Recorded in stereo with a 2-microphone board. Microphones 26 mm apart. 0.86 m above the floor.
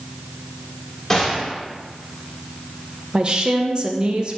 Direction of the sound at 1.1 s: 10° left (ahead or behind).